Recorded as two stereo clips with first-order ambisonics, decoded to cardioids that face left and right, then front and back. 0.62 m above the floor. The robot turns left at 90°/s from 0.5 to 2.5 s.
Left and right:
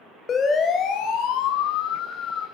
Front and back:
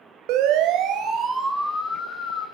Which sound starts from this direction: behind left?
A siren, at 0.3 s.